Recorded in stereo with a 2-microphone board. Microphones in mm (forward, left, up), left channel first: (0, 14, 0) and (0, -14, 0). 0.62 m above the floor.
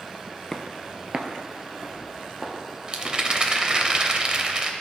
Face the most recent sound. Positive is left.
turn(degrees=-30)  # may be behind; listen again after turning